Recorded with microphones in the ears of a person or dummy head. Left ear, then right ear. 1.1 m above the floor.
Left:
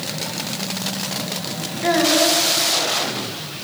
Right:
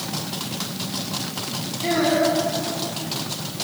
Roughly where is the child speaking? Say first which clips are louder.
Left 3 dB; left.